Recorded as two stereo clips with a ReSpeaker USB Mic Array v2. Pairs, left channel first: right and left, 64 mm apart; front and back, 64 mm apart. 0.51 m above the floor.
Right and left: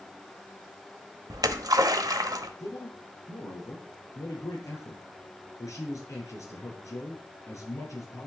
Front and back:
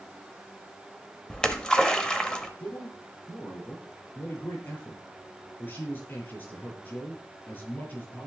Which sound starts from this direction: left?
A splash, at 1.3 s.